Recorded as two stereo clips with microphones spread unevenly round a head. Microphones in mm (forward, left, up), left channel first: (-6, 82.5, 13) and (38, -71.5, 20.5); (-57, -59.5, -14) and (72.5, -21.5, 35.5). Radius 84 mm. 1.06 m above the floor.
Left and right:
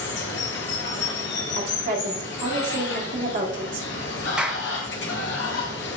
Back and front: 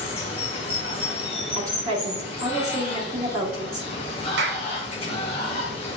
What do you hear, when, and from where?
0.0 s running water: 135° left, 0.9 m
1.6 s a woman speaking: 35° right, 1.5 m
4.4 s a clap: 10° left, 0.7 m